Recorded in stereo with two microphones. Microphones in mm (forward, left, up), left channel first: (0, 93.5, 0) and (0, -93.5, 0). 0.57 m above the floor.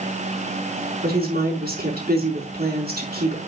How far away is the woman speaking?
About 5.5 m.